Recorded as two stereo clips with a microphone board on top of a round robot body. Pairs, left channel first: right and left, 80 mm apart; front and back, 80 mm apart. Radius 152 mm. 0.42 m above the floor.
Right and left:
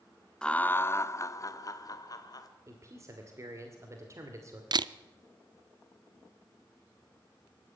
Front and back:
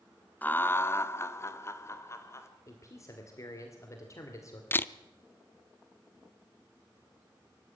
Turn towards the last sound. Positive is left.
turn(degrees=65)